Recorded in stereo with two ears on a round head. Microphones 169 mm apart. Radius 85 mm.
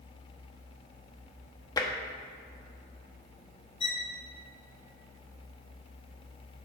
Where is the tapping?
20° left (ahead or behind), 0.9 m.